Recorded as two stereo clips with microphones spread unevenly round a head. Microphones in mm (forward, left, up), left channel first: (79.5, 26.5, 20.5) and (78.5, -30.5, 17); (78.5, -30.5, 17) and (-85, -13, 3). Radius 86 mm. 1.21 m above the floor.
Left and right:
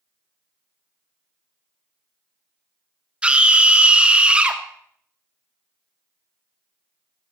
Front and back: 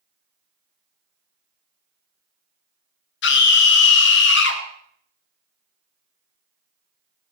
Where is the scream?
20° right, 2.5 m.